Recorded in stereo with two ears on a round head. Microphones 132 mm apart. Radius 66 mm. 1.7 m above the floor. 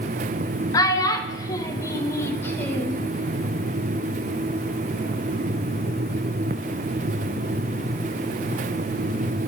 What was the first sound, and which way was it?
A child speaking, 25° left (ahead or behind).